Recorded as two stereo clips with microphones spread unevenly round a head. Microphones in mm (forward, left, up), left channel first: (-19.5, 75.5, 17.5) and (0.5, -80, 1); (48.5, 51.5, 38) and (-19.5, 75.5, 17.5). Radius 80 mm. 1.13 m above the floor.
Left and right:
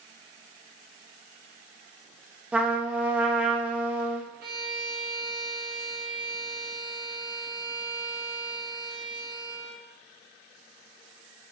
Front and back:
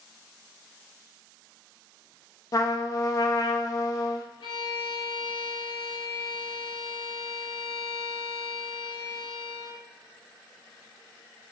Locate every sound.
2.5 s a trumpet: 20° right, 0.7 m
4.4 s a violin: 65° right, 1.1 m